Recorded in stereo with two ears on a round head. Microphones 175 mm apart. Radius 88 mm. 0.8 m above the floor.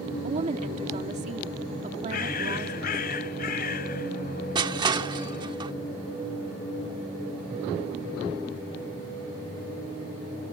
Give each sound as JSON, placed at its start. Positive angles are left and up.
{"t": 0.2, "sound": "a woman speaking", "side_deg": -35}
{"t": 2.1, "sound": "a bird", "side_deg": 50}
{"t": 4.5, "sound": "crushing", "side_deg": -25}